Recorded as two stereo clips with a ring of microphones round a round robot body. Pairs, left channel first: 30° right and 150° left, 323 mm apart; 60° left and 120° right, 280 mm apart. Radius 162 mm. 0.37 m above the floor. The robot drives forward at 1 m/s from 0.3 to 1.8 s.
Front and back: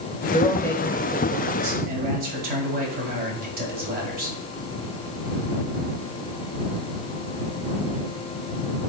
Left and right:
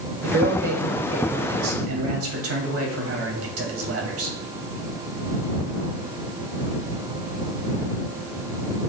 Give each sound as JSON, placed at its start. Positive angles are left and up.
{"t": 0.2, "sound": "a man speaking", "azimuth_deg": -85, "distance_m": 1.2}